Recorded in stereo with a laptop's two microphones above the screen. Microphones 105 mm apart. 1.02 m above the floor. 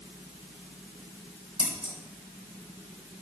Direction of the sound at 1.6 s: 60° right (ahead or behind).